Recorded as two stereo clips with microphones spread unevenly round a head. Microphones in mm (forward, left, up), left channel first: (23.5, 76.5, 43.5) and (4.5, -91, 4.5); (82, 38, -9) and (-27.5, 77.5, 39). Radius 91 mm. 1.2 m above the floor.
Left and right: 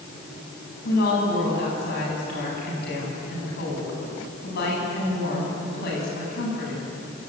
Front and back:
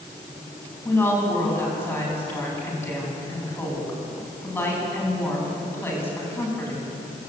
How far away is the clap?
I don't hear a clap.